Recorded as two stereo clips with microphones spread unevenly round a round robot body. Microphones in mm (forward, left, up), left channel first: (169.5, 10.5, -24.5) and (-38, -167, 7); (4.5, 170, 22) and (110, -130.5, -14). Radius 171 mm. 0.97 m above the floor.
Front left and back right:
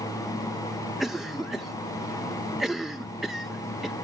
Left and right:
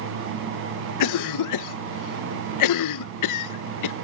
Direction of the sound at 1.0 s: 125° left.